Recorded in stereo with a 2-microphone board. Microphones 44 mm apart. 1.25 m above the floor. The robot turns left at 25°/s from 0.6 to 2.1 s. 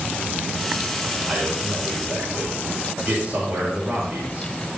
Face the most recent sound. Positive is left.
turn(degrees=-45)  # may be behind; listen again after turning